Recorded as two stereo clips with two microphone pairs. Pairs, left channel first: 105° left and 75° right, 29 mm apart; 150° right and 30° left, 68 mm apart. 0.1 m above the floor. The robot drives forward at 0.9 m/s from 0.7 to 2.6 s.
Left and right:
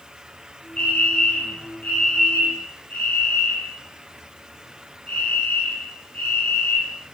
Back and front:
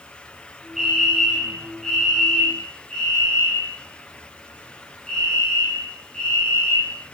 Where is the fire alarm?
120° left, 5.5 m; by 7.0 s 135° left, 6 m.